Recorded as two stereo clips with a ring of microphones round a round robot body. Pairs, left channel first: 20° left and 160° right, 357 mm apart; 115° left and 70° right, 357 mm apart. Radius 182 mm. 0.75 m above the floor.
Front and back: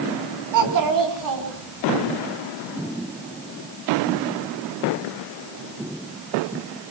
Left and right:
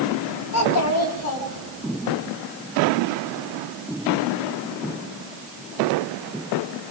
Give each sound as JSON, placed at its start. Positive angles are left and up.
{"t": 0.5, "sound": "a child speaking", "azimuth_deg": 160, "distance_m": 4.0}